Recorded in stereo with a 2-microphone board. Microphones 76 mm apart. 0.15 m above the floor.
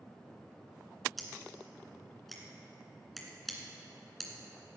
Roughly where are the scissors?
Centre.